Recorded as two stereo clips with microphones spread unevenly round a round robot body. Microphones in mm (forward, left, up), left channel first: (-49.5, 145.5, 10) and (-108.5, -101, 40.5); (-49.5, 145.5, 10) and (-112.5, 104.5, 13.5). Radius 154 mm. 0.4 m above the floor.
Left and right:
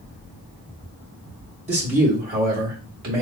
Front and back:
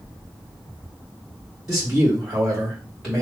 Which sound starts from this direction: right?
A man speaking, at 1.7 s.